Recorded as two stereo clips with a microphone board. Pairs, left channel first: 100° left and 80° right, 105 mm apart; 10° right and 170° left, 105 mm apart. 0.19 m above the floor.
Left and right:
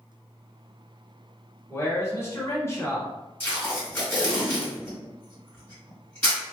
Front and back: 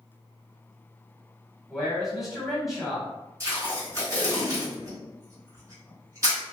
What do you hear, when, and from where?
1.7 s a man speaking: 85° left, 1.1 m
3.4 s tape being pulled: 155° left, 1.8 m